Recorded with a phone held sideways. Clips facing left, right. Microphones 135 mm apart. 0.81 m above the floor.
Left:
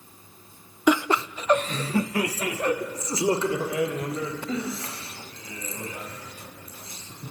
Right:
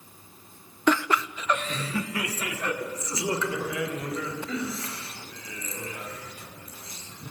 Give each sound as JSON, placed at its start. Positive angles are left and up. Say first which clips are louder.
{"t": 0.9, "sound": "laughter", "louder": "left 2 dB", "side_deg": 10, "distance_m": 0.5}